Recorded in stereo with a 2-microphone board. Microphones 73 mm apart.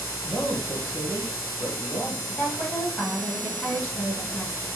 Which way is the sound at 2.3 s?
35° left (ahead or behind).